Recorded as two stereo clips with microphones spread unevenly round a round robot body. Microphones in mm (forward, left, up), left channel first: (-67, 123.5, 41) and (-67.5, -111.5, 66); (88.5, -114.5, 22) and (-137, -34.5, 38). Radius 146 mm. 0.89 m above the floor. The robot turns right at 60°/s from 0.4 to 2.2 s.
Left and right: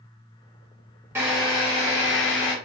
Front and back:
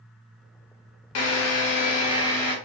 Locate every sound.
1.1 s a drill: 10° right, 0.9 m; by 2.5 s 55° left, 0.9 m